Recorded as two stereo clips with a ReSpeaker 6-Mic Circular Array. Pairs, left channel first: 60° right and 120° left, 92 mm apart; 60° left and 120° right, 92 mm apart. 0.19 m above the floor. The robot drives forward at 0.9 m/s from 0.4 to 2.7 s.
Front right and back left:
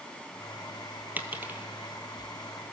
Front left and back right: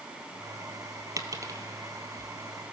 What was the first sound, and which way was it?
A dropped coin, 170° right.